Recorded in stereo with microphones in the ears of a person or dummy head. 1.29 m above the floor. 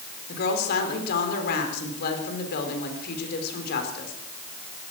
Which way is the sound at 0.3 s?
60° left (ahead or behind).